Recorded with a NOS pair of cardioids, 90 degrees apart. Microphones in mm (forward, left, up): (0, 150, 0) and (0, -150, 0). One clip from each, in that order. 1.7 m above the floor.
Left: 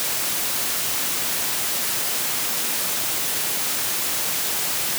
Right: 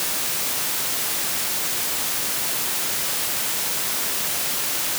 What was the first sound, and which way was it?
Only background noise.